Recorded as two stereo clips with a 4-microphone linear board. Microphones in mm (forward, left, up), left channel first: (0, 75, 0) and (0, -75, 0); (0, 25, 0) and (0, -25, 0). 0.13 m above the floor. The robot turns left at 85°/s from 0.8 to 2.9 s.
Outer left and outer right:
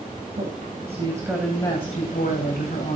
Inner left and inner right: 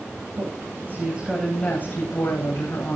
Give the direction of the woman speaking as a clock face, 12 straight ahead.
4 o'clock.